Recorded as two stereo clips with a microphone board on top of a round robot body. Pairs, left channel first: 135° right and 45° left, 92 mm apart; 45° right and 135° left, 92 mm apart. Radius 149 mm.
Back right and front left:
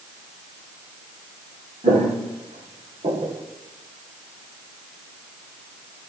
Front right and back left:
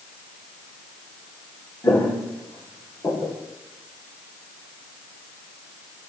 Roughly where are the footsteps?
Ahead.